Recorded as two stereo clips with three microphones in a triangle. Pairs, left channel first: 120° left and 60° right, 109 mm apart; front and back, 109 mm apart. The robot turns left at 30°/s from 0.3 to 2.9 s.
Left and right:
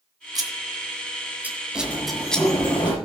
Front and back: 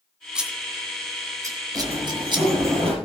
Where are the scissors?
100° right, 1.9 m; by 2.5 s 160° right, 1.9 m.